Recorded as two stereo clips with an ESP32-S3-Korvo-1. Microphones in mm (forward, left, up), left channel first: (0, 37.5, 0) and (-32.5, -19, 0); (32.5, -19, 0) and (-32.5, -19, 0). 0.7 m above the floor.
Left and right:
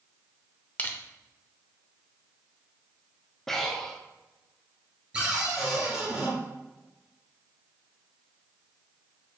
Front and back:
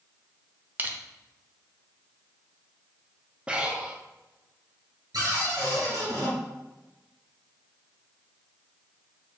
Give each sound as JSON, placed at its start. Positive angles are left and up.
{"t": 0.8, "sound": "crushing", "azimuth_deg": 120, "distance_m": 0.6}
{"t": 3.5, "sound": "breathing", "azimuth_deg": 135, "distance_m": 0.6}
{"t": 5.1, "sound": "a cupboard door", "azimuth_deg": 165, "distance_m": 2.0}